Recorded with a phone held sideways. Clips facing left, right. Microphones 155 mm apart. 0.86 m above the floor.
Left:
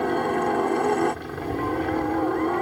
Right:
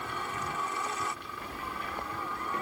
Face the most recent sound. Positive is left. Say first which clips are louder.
# left 16 dB
turn(degrees=60)  # may be behind; listen again after turning